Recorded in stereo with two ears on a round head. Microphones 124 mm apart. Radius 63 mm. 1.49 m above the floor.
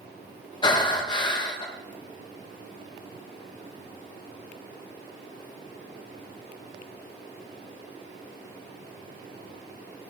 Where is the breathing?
30° left (ahead or behind), 1.7 m.